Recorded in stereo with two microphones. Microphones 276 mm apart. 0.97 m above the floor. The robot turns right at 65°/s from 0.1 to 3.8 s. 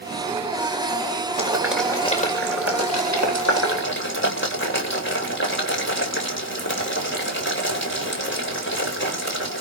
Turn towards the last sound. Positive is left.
turn(degrees=45)  # may be behind; listen again after turning